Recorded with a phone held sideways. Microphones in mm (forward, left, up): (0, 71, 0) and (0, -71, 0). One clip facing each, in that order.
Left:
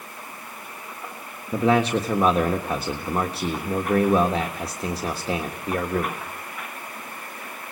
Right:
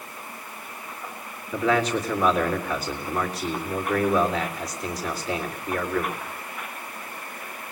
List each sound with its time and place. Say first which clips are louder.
1.5 s a man speaking: left 3 dB; 30° left (ahead or behind), 1.4 m